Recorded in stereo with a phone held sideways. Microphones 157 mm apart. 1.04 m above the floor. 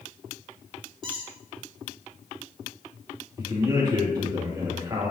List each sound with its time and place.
1.0 s a squeak: 35° right (ahead or behind), 3 m
3.4 s a man speaking: 25° right (ahead or behind), 1.8 m